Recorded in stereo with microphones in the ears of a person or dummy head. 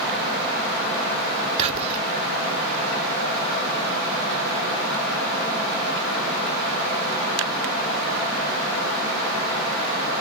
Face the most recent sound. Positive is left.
turn(degrees=-35)  # may be behind; listen again after turning